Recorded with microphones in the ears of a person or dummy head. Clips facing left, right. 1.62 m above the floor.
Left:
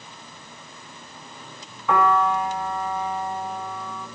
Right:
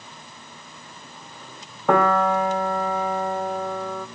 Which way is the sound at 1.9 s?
40° right (ahead or behind).